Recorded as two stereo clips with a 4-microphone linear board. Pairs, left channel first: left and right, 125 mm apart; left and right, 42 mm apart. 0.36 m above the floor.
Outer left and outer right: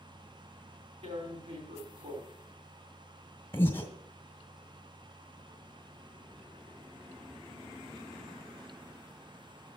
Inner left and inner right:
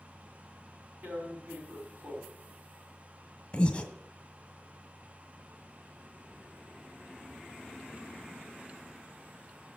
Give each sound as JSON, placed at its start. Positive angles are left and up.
{"t": 1.0, "sound": "tearing paper", "side_deg": -55, "distance_m": 3.0}
{"t": 3.5, "sound": "breathing", "side_deg": 20, "distance_m": 1.7}